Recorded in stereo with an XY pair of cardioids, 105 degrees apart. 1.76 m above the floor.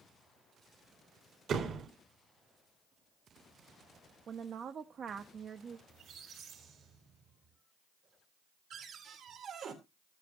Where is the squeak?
70° right, 3.5 m.